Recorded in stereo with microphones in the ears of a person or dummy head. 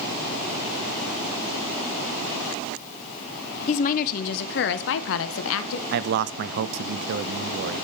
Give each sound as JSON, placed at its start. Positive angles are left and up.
{"t": 3.7, "sound": "a woman speaking", "side_deg": 40, "distance_m": 0.8}
{"t": 5.9, "sound": "a man speaking", "side_deg": -60, "distance_m": 0.6}